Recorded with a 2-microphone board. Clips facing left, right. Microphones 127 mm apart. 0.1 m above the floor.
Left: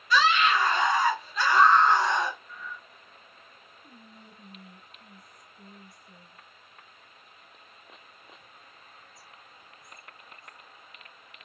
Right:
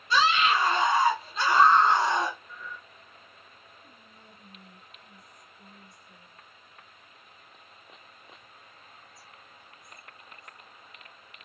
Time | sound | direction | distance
0.1 | a scream | 25° right (ahead or behind) | 1.8 m
2.5 | breathing | 30° right (ahead or behind) | 2.5 m
3.8 | whispering | 25° left (ahead or behind) | 1.9 m